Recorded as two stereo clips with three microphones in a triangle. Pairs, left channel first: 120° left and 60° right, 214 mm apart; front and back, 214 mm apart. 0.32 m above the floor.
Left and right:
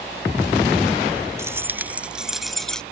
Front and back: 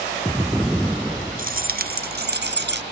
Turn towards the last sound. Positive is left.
turn(degrees=-155)